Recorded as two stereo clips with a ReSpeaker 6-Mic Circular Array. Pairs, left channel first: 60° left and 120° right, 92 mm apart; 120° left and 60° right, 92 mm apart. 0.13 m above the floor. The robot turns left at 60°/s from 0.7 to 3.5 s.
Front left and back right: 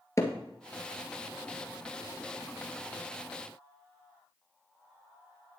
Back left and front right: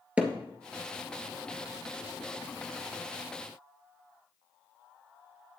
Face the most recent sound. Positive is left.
turn(degrees=-155)